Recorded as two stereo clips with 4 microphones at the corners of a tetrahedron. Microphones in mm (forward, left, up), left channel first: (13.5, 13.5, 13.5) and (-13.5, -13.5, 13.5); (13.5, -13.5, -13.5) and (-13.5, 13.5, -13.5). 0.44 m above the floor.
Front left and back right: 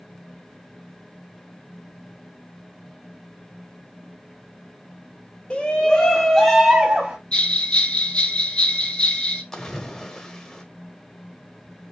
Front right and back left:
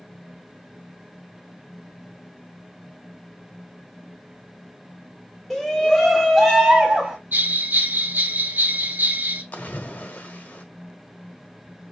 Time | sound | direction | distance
5.5 | a shout | 45° left | 1.3 m
7.3 | a bell | 105° left | 1.1 m
9.5 | a splash | 25° right | 0.9 m